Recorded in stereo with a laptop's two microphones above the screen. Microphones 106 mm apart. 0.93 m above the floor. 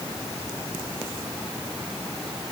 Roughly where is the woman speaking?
I don't hear a woman speaking.